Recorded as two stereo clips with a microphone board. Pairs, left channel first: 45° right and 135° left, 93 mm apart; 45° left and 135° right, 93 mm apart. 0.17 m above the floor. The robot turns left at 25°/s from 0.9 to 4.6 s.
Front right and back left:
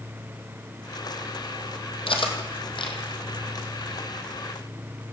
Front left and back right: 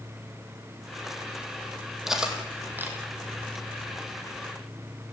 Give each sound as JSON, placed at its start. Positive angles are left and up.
{"t": 2.1, "sound": "cutlery clinking", "azimuth_deg": -50, "distance_m": 4.0}